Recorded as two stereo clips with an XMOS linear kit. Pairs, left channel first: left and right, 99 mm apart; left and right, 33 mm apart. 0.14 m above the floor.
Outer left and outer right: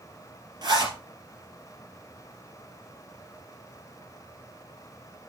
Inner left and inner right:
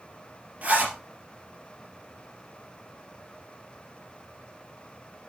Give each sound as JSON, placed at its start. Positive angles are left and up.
{"t": 0.6, "sound": "a zipper", "side_deg": -45, "distance_m": 3.5}